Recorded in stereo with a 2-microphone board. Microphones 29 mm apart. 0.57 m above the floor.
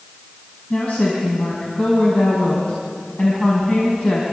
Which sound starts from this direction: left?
A woman speaking, at 0.7 s.